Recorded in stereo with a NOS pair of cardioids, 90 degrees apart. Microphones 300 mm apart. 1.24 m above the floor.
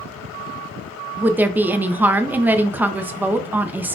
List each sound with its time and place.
1.2 s a woman speaking: 5° right, 0.5 m